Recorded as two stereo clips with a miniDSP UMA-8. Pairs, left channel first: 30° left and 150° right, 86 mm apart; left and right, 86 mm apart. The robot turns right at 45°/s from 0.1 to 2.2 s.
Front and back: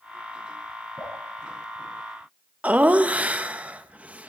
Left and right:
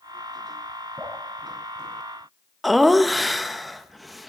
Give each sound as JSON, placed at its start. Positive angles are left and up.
{"t": 1.0, "sound": "dripping", "azimuth_deg": -35, "distance_m": 5.5}
{"t": 2.6, "sound": "laughter", "azimuth_deg": 180, "distance_m": 0.7}